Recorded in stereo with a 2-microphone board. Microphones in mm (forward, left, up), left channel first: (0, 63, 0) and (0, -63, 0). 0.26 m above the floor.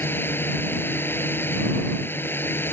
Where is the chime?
I don't hear a chime.